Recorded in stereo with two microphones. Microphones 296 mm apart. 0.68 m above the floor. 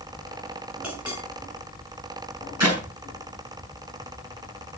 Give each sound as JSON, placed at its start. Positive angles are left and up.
{"t": 0.8, "sound": "a clink", "side_deg": -5, "distance_m": 5.5}
{"t": 2.6, "sound": "a clap", "side_deg": -65, "distance_m": 8.0}